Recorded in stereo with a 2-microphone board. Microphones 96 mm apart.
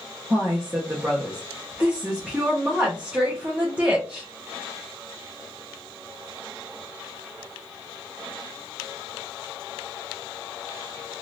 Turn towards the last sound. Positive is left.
turn(degrees=-15)  # may be behind; listen again after turning